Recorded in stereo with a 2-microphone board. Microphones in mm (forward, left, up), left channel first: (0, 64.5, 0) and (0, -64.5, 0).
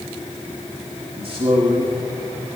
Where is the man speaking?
45° right (ahead or behind), 1.8 m.